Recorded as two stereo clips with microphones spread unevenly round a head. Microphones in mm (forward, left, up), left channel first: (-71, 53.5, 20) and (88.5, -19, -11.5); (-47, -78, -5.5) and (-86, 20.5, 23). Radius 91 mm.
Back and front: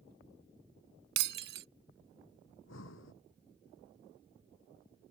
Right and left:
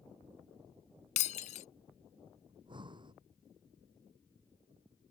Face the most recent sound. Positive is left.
turn(degrees=150)